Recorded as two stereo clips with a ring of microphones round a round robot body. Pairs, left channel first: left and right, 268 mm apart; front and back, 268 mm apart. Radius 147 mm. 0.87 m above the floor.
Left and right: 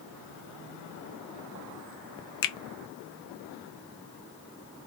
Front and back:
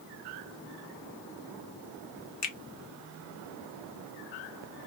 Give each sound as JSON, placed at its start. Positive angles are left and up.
{"t": 2.4, "sound": "a finger snap", "azimuth_deg": 60, "distance_m": 0.5}